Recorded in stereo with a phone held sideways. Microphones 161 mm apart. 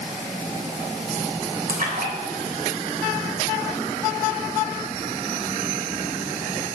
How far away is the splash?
About 3.5 m.